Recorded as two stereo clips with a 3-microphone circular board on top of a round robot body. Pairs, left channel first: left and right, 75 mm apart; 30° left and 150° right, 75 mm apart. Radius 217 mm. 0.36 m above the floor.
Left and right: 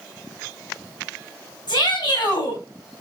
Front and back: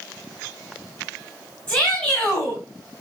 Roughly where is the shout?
Left.